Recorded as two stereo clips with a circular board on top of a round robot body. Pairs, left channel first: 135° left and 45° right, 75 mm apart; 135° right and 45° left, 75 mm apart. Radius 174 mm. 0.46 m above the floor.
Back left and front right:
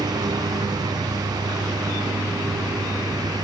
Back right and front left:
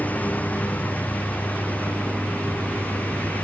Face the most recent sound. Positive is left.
turn(degrees=-65)